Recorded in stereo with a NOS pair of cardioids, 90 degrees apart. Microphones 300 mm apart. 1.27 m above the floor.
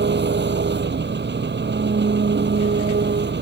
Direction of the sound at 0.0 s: 35° right.